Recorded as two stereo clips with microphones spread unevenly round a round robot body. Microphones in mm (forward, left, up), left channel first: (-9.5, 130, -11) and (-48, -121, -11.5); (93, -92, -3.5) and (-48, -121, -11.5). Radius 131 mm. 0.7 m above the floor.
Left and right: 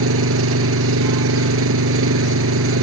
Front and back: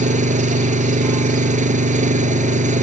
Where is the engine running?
135° right.